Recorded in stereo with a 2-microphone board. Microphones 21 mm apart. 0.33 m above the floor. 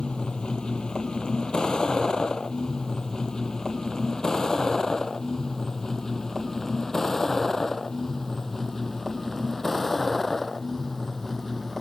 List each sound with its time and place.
0.0 s a vehicle: 55° left (ahead or behind); by 11.8 s 15° left (ahead or behind)